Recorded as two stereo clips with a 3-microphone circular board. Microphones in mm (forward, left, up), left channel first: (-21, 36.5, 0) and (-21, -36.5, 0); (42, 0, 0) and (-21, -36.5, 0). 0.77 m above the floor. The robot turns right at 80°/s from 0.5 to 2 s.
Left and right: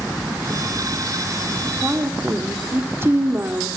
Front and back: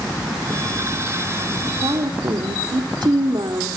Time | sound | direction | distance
1.8 | a woman speaking | 165° right | 1.9 m